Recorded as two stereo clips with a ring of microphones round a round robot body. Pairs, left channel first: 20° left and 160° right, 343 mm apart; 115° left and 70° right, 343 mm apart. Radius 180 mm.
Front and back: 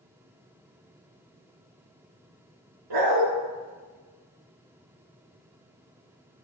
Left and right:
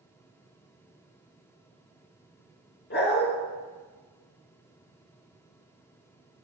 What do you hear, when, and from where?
2.9 s a dog barking: 175° left, 2.5 m